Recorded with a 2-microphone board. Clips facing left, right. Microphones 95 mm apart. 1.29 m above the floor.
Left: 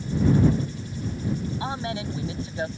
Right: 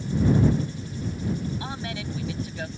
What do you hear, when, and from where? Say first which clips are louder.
1.6 s a man speaking: left 4 dB; 25° left (ahead or behind)